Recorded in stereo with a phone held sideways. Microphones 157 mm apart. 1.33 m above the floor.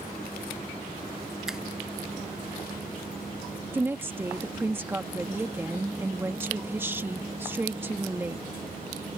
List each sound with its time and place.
1.5 s a finger snap: 5° right (ahead or behind)
3.7 s a woman speaking: 15° right (ahead or behind)